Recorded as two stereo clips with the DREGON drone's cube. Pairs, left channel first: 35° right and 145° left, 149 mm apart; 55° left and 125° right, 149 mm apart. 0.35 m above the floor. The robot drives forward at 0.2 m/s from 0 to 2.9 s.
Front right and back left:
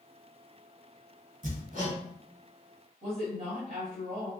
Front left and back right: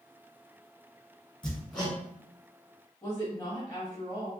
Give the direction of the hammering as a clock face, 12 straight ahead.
7 o'clock.